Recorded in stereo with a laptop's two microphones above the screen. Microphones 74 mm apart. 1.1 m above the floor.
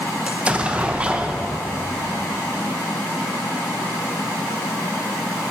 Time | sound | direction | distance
0.3 | an explosion | 15° right (ahead or behind) | 0.9 m